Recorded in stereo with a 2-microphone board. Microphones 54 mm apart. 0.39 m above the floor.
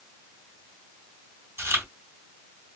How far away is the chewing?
About 1.9 m.